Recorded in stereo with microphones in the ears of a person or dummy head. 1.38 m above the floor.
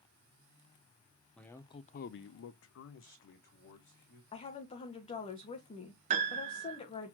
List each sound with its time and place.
1.4 s a man speaking: 5° left (ahead or behind), 0.7 m; by 4.2 s 50° left (ahead or behind), 1.8 m
4.3 s a woman speaking: 30° left (ahead or behind), 1.3 m
6.1 s a piano: 35° right (ahead or behind), 0.9 m